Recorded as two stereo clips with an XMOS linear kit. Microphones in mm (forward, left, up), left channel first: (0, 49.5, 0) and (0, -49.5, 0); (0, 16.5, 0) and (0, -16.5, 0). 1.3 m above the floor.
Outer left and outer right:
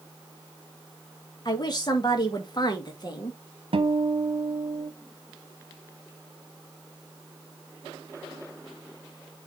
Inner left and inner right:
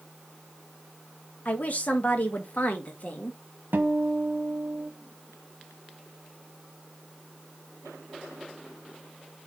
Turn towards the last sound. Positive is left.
turn(degrees=-65)  # may be behind; listen again after turning